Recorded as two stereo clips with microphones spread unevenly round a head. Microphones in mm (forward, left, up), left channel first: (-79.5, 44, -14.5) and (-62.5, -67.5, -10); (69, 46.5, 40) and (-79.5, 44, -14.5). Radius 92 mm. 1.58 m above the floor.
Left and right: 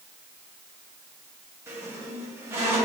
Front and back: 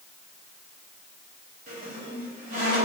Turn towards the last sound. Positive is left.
turn(degrees=-125)